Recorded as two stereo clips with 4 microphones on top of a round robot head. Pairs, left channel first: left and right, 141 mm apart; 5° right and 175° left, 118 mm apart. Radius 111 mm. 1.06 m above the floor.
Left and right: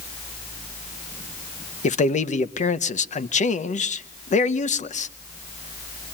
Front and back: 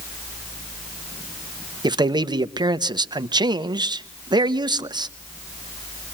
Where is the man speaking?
125° left, 1.1 m.